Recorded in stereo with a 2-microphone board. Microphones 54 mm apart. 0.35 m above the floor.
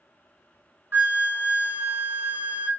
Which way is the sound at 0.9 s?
40° right (ahead or behind).